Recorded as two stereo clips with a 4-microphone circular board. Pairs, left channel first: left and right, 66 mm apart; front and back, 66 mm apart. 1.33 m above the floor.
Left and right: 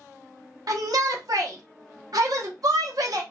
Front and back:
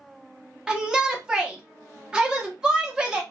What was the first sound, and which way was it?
A shout, 105° right.